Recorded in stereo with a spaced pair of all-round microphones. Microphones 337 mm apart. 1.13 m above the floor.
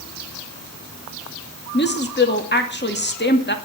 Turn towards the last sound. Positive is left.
turn(degrees=30)  # may be behind; listen again after turning